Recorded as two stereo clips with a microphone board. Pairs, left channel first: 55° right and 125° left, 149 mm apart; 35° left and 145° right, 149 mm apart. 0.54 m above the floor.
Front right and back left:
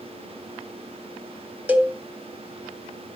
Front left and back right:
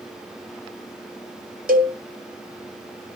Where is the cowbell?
155° right, 1.9 m.